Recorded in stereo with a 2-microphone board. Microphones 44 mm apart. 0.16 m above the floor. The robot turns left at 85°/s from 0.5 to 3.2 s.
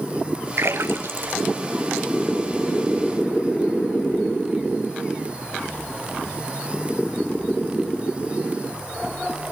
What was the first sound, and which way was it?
A splash, 60° right (ahead or behind).